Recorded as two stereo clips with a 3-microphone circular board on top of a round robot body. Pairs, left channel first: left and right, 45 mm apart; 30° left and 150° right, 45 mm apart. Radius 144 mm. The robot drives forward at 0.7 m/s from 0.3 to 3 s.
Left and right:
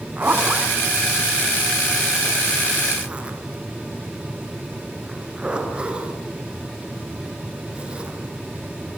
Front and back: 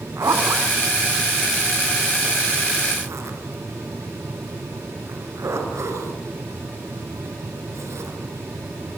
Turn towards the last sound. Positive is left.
turn(degrees=-160)